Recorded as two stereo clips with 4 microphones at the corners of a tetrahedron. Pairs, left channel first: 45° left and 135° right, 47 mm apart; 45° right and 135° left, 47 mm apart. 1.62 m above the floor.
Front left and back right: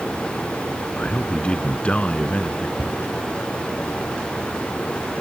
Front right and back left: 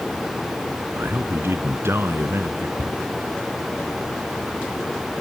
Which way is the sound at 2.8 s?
150° left.